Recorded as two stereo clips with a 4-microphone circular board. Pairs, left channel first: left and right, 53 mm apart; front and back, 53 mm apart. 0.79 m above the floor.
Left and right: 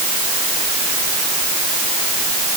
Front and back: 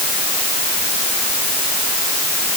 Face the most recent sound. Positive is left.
No sound to turn to.